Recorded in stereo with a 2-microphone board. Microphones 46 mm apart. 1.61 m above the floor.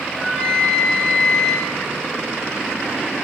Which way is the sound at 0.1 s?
20° left (ahead or behind).